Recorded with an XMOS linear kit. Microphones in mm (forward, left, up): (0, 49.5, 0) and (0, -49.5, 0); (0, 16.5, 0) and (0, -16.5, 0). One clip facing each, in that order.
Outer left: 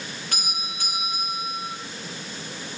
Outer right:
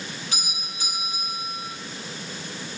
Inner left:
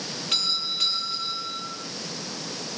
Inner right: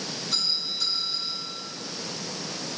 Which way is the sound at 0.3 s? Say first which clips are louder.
Outer left 2 dB, inner left 3 dB; 60° left (ahead or behind).